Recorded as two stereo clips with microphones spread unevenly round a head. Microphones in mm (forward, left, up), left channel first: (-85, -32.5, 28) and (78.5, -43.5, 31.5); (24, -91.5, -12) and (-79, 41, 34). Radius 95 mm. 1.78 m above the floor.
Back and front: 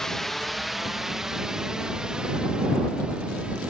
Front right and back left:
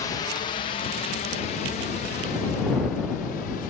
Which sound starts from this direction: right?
A drone, at 0.0 s.